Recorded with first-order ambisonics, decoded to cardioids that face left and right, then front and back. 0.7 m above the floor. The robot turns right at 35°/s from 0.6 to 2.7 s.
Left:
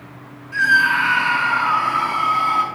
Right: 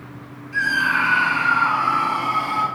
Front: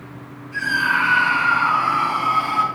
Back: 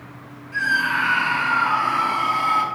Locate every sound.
0.5 s a scream: 100° left, 5 m; by 2.6 s 175° left, 5 m